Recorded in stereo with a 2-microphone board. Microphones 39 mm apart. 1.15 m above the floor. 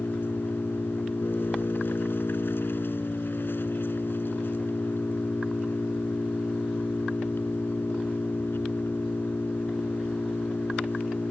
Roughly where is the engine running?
Left.